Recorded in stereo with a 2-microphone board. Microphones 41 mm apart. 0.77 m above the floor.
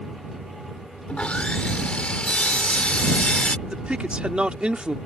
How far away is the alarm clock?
No alarm clock in this recording.